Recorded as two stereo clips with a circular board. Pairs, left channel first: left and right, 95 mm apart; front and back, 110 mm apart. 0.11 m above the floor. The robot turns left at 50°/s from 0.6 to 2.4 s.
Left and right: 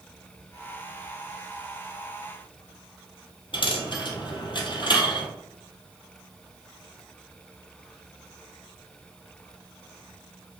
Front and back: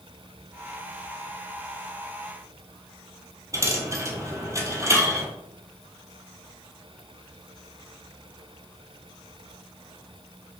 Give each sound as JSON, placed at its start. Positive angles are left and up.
{"t": 3.5, "sound": "a dropped coin", "azimuth_deg": 120, "distance_m": 1.4}